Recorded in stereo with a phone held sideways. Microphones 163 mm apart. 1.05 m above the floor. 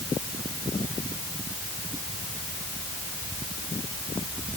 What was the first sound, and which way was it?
Only background noise.